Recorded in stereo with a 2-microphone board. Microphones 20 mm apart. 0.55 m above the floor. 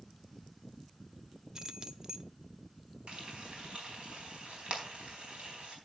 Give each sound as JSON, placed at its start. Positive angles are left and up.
{"t": 1.6, "sound": "keys jangling", "side_deg": -40, "distance_m": 0.6}
{"t": 3.1, "sound": "frying", "side_deg": -75, "distance_m": 4.0}